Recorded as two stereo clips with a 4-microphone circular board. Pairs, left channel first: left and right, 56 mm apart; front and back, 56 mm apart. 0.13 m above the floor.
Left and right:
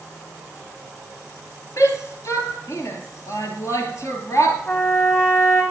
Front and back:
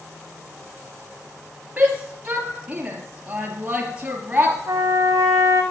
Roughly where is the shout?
Left.